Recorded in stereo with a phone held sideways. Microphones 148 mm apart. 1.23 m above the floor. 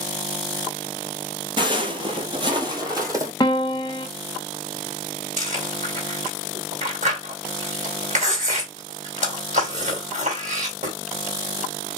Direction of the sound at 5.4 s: 55° right (ahead or behind).